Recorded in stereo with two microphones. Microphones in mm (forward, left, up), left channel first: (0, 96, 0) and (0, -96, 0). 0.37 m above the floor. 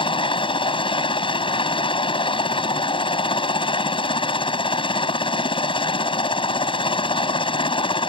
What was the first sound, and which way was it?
A helicopter, 30° left (ahead or behind).